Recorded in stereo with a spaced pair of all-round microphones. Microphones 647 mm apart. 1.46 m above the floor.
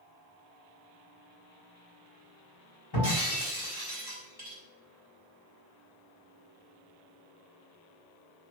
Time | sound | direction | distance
2.9 | breaking glass | 35° left (ahead or behind) | 4.5 m